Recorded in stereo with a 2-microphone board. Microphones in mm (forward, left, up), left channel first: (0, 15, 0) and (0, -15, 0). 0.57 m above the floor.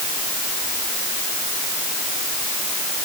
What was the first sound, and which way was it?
Only background noise.